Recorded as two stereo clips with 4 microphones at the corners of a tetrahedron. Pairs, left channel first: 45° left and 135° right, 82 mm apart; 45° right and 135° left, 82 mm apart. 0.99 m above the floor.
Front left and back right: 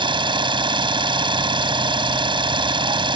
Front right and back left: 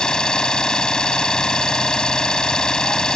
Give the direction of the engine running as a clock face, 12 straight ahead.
4 o'clock.